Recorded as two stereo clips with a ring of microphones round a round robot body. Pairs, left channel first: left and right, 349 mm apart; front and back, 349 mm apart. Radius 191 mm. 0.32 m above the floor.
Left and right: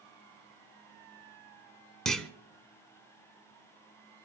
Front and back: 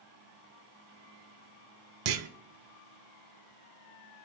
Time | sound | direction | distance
2.0 | a clunk | straight behind | 0.9 m